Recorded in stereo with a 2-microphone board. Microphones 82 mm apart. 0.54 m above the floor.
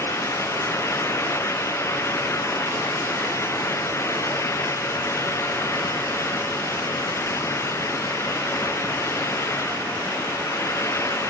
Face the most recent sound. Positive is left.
No sound to turn to.